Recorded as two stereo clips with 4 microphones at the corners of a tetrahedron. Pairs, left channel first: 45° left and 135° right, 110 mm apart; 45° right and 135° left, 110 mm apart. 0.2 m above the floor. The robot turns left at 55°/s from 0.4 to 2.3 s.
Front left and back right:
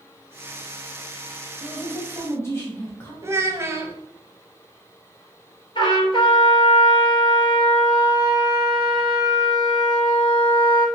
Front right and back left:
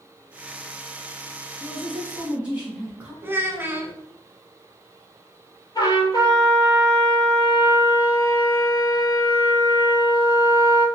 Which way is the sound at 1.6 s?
110° left.